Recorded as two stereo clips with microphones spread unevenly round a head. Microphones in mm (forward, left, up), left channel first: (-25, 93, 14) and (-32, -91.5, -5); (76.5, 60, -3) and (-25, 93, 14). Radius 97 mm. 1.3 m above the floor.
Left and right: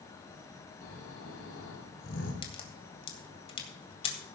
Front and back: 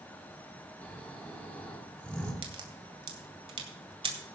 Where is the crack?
145° left, 2.5 m.